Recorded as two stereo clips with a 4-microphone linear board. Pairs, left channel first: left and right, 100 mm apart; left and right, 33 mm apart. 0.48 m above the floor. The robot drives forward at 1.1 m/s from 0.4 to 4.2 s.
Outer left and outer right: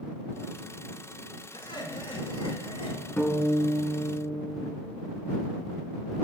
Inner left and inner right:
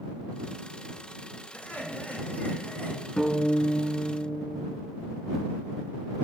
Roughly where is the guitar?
Centre.